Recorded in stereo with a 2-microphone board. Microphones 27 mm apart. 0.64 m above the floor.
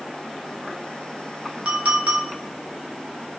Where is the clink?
60° right (ahead or behind), 0.9 m.